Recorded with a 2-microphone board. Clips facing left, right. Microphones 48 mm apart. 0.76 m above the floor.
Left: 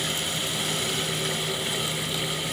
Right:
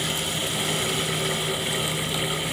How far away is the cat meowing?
I don't hear a cat meowing.